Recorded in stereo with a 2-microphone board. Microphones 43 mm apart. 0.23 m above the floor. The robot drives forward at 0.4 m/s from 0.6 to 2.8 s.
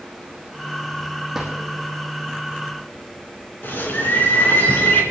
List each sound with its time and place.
1.3 s a drawer: 5° right (ahead or behind), 3.5 m
3.6 s a bird: 55° left (ahead or behind), 2.5 m